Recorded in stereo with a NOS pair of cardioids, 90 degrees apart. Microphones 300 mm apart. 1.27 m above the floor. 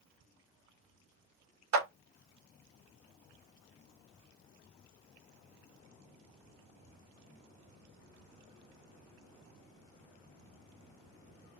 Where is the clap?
65° right, 1.2 m.